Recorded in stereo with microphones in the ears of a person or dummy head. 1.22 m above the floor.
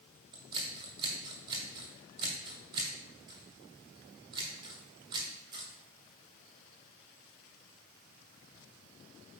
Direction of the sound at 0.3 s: 25° right (ahead or behind).